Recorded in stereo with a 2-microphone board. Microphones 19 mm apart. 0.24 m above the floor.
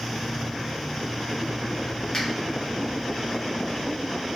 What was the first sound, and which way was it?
A finger snap, 35° left (ahead or behind).